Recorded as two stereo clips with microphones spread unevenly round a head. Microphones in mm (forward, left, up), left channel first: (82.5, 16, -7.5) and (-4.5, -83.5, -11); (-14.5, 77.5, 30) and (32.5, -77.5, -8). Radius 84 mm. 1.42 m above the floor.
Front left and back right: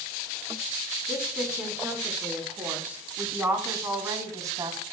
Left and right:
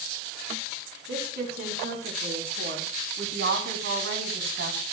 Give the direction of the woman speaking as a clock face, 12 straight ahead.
2 o'clock.